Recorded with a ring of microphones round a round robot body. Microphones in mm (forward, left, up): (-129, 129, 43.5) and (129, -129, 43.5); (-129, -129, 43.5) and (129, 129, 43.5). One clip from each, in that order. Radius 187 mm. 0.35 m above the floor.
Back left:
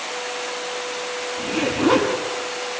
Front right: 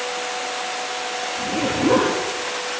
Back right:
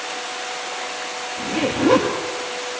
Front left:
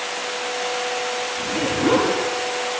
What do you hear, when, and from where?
1.4 s a zipper: 175° right, 7.5 m